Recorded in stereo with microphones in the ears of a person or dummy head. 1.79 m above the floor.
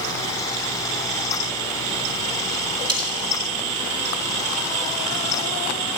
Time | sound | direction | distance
2.9 | cutlery clinking | 25° right (ahead or behind) | 2 m